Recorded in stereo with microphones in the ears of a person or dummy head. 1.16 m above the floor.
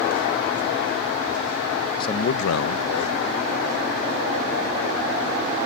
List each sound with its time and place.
2.0 s a man speaking: 25° left (ahead or behind); by 5.5 s 30° left (ahead or behind)